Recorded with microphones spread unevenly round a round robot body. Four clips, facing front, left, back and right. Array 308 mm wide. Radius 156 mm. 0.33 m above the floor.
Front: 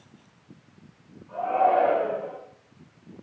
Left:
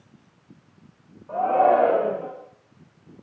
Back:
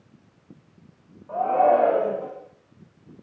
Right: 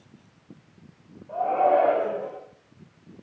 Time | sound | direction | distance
1.3 | a shout | 110° left | 8.5 m